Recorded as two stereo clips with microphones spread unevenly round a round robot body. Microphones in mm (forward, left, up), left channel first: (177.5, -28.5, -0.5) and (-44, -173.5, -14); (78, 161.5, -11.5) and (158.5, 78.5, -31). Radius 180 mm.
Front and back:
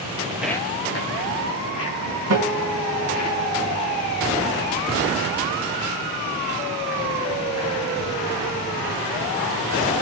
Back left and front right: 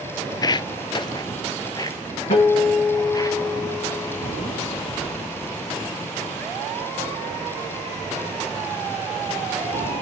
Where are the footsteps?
155° left, 0.6 m; by 3.3 s 80° left, 5 m.